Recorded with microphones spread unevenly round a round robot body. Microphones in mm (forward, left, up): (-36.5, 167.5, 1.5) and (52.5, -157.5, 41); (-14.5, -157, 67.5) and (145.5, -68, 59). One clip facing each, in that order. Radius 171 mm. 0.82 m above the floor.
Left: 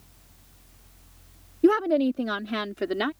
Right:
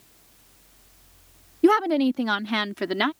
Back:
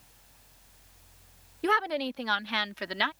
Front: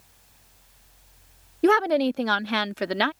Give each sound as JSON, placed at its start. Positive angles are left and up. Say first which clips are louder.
{"t": 1.6, "sound": "a woman speaking", "louder": "right 1 dB, front 10 dB", "azimuth_deg": -5}